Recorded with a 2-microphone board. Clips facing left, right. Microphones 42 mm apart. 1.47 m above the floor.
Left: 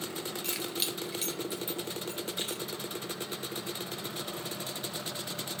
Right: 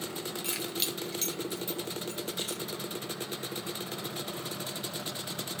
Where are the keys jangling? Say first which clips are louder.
Even; 5° right (ahead or behind), 1.9 m; by 2.6 s 30° left (ahead or behind), 3.5 m.